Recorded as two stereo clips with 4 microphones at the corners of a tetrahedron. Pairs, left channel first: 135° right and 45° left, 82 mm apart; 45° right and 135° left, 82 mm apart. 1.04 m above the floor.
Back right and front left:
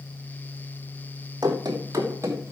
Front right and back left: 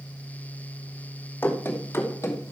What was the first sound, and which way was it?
Running footsteps, 20° left.